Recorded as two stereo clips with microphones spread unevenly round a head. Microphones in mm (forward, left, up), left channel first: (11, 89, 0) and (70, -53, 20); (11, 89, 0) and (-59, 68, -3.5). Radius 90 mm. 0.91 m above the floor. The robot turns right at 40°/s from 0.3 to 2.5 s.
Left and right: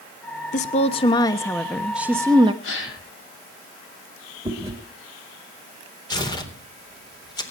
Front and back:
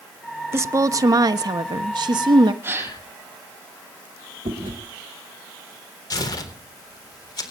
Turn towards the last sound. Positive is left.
turn(degrees=50)